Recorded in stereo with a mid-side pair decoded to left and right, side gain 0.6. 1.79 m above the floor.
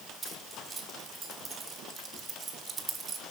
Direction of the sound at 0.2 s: 25° right.